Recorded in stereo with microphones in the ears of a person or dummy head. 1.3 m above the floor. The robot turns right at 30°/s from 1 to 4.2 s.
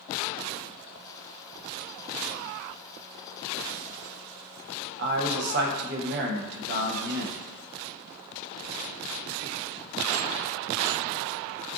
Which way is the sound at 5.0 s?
60° right (ahead or behind).